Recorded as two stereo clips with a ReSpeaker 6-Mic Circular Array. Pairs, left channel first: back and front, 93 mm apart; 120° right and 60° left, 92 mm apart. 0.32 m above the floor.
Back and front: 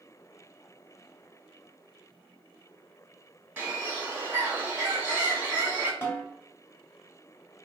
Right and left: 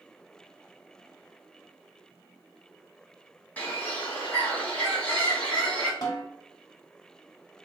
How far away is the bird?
About 1.2 m.